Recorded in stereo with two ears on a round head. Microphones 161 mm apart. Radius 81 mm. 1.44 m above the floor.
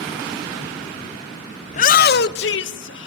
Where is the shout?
35° left (ahead or behind), 0.7 m; by 3.1 s 75° left (ahead or behind), 2 m.